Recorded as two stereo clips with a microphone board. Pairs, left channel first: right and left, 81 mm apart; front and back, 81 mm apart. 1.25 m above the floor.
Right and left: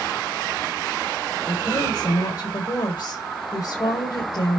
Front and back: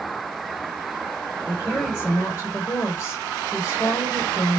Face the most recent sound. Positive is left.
turn(degrees=-60)